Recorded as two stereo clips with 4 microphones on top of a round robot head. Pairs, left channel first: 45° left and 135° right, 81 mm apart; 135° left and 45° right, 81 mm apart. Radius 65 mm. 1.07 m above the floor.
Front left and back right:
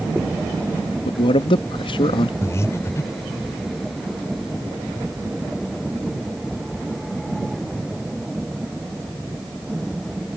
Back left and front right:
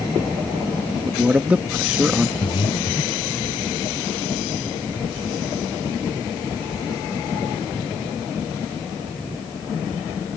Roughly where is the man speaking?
Ahead left.